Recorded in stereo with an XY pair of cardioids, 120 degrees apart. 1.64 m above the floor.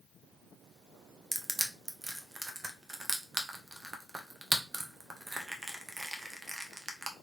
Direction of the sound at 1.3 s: 15° right.